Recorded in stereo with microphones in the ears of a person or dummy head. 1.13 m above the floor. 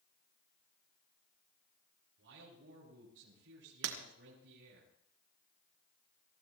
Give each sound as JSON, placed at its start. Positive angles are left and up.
{"t": 2.2, "sound": "a man speaking", "side_deg": -70, "distance_m": 7.5}
{"t": 3.8, "sound": "breaking glass", "side_deg": -70, "distance_m": 2.5}